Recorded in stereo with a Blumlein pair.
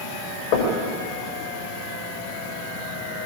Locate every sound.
0.5 s knocking: 45° left, 6 m